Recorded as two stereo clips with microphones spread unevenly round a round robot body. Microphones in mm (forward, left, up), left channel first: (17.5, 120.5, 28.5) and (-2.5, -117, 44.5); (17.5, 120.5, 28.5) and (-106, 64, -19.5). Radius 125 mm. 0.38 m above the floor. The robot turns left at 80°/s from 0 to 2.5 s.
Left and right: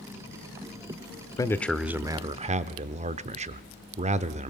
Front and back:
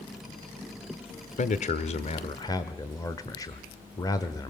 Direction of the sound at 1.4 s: 30° left.